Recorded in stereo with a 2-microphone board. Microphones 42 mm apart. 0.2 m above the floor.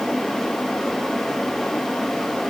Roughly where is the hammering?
I don't hear hammering.